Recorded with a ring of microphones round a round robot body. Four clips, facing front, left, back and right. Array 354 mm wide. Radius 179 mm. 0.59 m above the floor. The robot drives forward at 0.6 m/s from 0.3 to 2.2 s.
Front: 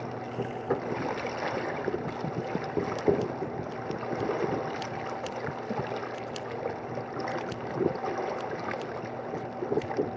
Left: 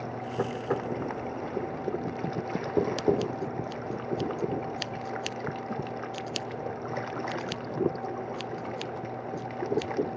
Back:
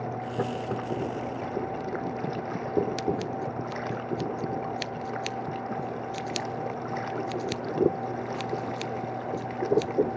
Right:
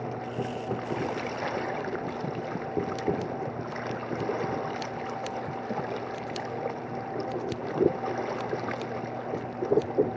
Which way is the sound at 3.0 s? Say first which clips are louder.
Left 3 dB, front 2 dB; 145° left.